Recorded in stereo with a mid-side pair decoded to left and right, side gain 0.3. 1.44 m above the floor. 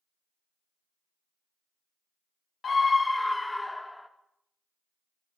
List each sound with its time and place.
2.6 s a scream: 60° left, 1.1 m; by 4.1 s straight ahead, 2.5 m